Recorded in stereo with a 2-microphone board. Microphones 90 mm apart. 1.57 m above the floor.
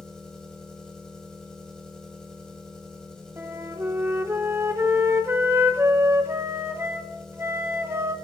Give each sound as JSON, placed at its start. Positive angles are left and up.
{"t": 0.0, "sound": "an engine running", "side_deg": 10, "distance_m": 1.9}
{"t": 3.4, "sound": "a flute", "side_deg": -30, "distance_m": 0.7}